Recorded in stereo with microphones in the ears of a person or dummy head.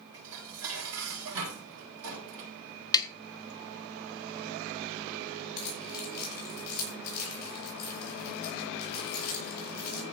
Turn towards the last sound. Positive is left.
turn(degrees=50)  # may be behind; listen again after turning